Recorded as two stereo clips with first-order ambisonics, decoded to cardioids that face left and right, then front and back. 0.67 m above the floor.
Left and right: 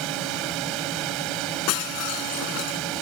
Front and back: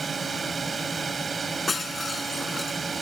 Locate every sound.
0.0 s a drone: 110° right
1.7 s breaking glass: 80° left